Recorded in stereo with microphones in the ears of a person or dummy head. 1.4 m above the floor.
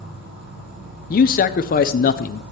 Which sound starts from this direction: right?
An insect, at 0.0 s.